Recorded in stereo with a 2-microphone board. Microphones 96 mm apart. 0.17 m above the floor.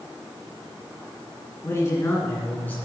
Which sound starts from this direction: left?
A man speaking, at 1.6 s.